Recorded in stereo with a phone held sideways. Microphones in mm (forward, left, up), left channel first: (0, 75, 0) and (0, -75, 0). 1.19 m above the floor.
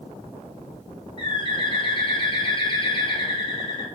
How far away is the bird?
About 0.6 m.